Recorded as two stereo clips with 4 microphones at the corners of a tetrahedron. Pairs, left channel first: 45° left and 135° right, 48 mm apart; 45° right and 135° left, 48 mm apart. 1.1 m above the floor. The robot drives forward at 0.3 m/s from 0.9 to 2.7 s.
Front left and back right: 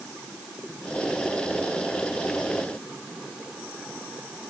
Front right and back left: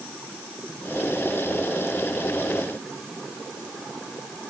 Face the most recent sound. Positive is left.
No sound to turn to.